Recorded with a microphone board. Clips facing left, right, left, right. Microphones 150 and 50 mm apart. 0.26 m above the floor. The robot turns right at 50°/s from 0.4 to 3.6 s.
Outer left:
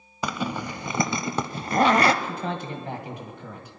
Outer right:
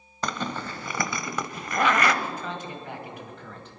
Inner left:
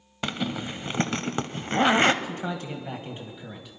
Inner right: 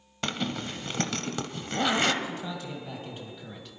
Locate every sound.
0.2 s a zipper: 15° left, 0.7 m; by 2.1 s 105° left, 0.7 m
2.2 s a man speaking: 100° left, 1.6 m; by 3.8 s 165° left, 1.6 m